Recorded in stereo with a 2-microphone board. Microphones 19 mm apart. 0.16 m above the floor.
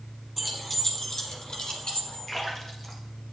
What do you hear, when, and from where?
0.4 s keys jangling: centre (ahead or behind), 0.9 m; by 2.3 s 50° left (ahead or behind), 1.3 m
2.3 s a splash: 20° left (ahead or behind), 1.3 m